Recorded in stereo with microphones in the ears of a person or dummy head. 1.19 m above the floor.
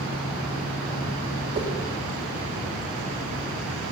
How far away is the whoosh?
About 1.3 m.